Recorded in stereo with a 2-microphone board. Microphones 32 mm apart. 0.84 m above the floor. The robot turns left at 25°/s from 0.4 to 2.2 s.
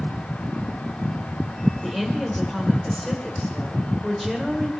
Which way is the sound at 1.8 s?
Centre (ahead or behind).